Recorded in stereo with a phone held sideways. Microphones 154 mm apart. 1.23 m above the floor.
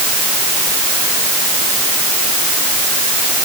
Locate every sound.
Only background noise.